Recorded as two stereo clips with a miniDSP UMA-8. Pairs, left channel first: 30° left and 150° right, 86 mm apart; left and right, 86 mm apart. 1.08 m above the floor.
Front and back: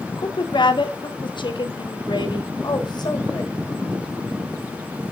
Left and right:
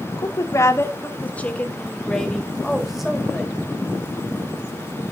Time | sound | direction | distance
0.2 | a woman speaking | 55° left | 1.2 m